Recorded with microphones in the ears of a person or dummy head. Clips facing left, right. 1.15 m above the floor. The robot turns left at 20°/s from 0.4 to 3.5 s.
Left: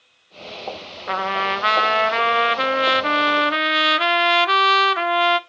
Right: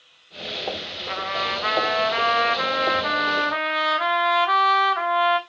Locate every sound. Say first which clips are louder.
1.1 s a trumpet: left 5 dB; 95° left, 0.8 m; by 5.4 s 45° left, 0.8 m